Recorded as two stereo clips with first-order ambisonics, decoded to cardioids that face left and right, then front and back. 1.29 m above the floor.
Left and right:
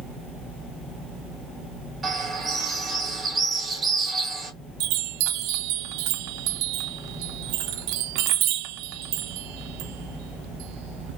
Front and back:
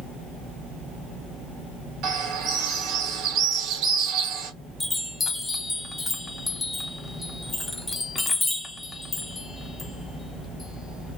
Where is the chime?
85° right, 0.6 m.